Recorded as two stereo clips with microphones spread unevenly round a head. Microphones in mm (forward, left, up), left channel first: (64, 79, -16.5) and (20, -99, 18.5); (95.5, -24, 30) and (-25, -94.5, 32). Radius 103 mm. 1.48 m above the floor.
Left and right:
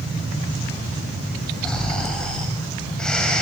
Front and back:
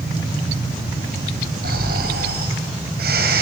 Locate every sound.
1.6 s snoring: 165° left, 4 m